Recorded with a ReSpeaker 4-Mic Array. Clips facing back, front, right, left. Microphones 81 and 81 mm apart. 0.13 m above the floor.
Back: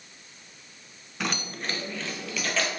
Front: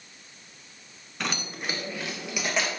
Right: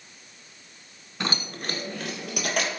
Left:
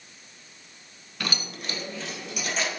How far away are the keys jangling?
About 0.9 m.